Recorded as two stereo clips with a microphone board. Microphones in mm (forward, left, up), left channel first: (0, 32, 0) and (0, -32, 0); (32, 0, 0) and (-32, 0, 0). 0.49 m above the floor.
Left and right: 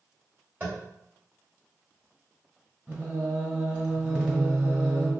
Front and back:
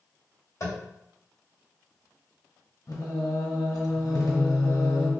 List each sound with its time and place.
0.6 s tapping: 30° right, 2.5 m
2.9 s singing: 20° right, 2 m